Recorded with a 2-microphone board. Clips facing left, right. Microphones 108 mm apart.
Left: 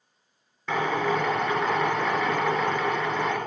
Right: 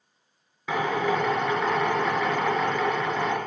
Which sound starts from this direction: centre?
A drill, at 0.7 s.